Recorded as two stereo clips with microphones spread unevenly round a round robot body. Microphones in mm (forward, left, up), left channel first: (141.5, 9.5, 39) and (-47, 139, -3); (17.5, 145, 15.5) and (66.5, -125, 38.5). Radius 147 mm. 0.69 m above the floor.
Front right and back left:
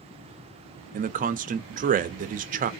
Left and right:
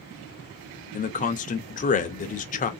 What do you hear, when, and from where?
0.9 s a man speaking: 140° left, 0.6 m